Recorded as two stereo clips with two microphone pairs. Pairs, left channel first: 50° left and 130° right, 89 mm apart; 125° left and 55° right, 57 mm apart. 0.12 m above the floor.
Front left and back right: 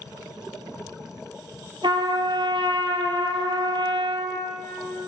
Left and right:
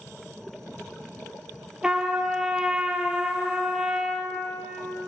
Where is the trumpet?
135° right, 0.6 m.